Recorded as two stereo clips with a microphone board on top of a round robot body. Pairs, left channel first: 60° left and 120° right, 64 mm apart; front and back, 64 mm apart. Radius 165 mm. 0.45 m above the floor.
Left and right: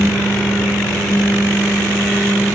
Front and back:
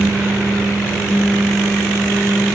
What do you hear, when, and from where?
Only background noise.